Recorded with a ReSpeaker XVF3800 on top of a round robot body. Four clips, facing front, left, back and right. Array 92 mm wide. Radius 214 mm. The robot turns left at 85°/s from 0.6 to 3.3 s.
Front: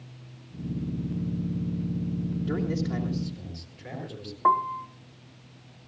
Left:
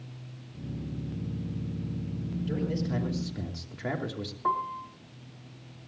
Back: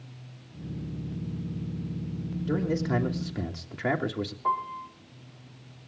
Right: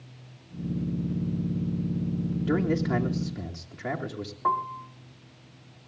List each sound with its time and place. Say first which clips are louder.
2.5 s a man speaking: right 6 dB, back 4 dB; 100° right, 2.5 m; by 4.3 s 170° right, 2.5 m
4.4 s a piano: right 2 dB, front 7 dB; 5° right, 0.7 m